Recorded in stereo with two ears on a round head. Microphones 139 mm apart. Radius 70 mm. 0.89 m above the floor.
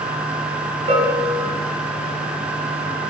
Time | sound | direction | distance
0.9 | a bell | 40° right (ahead or behind) | 4 m